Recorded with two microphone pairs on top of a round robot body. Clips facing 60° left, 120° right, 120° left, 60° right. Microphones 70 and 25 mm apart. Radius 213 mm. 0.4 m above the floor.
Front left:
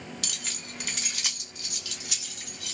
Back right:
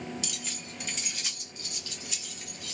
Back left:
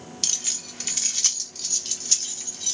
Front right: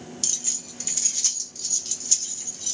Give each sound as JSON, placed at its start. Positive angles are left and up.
{"t": 0.2, "sound": "keys jangling", "azimuth_deg": 80, "distance_m": 1.2}